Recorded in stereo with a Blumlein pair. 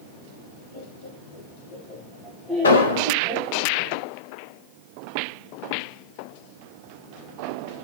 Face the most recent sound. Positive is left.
turn(degrees=70)